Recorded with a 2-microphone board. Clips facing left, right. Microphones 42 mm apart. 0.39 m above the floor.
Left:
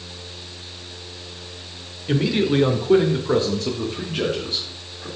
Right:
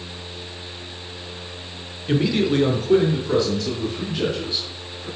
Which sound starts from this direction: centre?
A man speaking, at 2.1 s.